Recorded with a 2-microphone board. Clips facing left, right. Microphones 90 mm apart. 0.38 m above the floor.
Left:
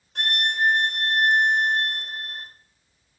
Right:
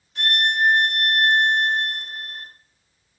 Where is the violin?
50° left (ahead or behind), 1.8 m.